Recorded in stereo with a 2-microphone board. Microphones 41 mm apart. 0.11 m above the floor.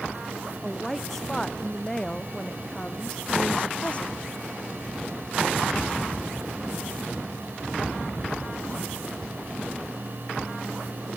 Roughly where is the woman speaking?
Centre.